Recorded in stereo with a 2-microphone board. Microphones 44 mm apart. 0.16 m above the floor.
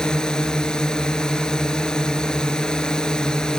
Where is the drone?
20° left (ahead or behind).